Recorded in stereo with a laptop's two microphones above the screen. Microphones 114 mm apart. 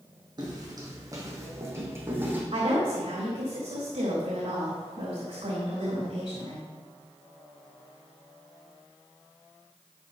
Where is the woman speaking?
75° right (ahead or behind), 3.5 m.